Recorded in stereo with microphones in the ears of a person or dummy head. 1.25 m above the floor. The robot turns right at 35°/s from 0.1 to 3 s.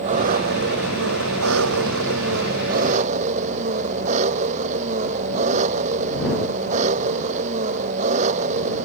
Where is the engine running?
145° right; by 8.9 s 45° right.